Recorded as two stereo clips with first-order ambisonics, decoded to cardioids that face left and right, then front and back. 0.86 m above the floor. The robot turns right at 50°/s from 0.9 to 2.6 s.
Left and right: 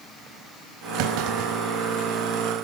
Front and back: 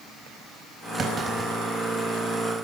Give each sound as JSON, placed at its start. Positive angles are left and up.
{"t": 1.0, "sound": "a clunk", "azimuth_deg": -115, "distance_m": 4.5}